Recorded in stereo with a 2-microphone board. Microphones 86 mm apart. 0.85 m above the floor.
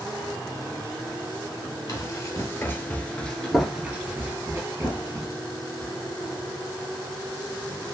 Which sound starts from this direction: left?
Running footsteps, at 1.9 s.